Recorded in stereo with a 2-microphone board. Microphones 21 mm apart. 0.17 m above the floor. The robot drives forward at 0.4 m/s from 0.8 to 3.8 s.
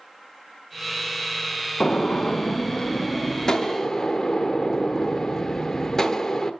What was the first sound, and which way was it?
A gunshot, 50° left (ahead or behind).